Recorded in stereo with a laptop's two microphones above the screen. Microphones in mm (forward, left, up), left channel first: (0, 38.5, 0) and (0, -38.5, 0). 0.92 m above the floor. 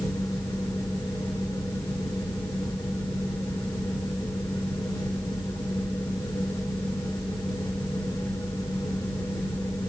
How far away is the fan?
About 1.2 m.